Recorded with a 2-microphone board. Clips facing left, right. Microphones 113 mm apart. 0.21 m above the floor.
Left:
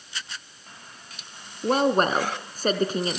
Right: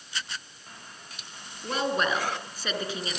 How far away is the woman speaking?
About 2.5 m.